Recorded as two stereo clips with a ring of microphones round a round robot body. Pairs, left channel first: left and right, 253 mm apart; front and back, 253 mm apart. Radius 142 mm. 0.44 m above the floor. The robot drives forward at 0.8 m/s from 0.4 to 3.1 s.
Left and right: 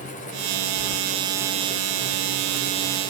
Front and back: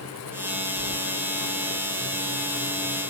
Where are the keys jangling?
105° right, 0.6 m; by 1.0 s 125° right, 0.7 m.